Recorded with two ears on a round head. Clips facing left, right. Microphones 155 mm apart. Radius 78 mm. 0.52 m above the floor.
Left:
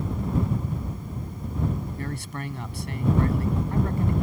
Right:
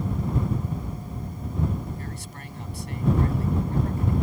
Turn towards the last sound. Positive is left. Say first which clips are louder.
# left 5 dB
turn(degrees=55)  # may be behind; listen again after turning